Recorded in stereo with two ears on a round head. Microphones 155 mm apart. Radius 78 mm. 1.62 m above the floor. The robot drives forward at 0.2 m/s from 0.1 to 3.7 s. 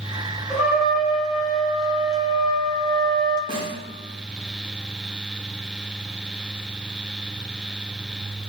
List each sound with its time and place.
0.5 s a trumpet: 5° right (ahead or behind), 0.7 m
3.5 s a snare drum: 30° right (ahead or behind), 0.6 m